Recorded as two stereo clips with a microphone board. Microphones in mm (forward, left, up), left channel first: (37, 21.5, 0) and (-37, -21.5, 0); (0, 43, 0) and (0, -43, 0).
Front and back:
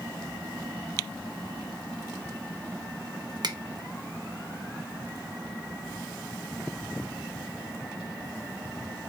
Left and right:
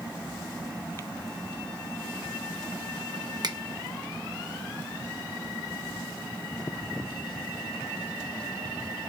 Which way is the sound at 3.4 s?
120° right.